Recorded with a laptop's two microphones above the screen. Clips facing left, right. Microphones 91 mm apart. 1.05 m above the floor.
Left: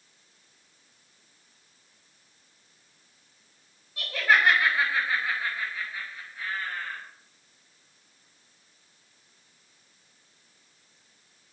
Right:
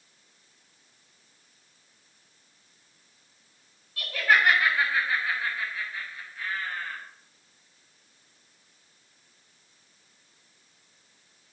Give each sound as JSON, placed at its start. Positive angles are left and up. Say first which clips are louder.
{"t": 4.0, "sound": "laughter", "louder": "even", "side_deg": 20, "distance_m": 5.0}